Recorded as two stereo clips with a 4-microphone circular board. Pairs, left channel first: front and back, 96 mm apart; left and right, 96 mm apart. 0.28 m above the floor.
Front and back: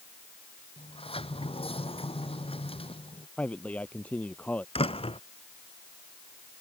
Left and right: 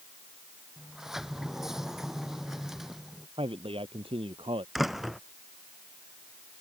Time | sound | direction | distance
0.8 | a sliding door | 5° right | ?
3.4 | a man speaking | 75° right | ?
4.8 | a door slam | straight ahead | ?